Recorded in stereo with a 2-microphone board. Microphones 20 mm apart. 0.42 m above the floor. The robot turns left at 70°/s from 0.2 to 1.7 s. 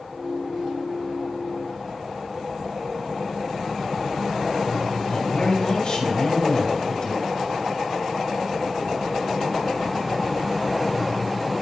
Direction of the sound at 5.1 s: 55° left (ahead or behind).